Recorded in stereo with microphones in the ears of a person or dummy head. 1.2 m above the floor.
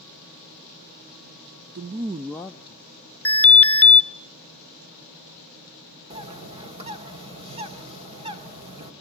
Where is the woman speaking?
45° right (ahead or behind), 0.7 m; by 2.9 s 30° left (ahead or behind), 1.0 m.